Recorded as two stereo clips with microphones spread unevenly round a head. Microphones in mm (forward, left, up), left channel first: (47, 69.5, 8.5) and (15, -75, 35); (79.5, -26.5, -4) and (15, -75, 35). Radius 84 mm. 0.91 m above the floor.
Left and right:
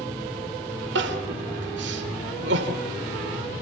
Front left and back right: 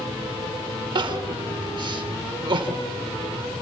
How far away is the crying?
About 3 m.